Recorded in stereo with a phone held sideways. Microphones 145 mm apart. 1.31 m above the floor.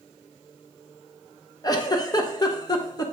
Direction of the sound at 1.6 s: 30° left (ahead or behind).